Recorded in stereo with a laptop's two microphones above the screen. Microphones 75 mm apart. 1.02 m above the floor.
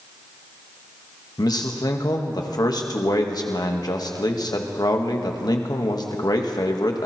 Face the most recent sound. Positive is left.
turn(degrees=60)  # may be behind; listen again after turning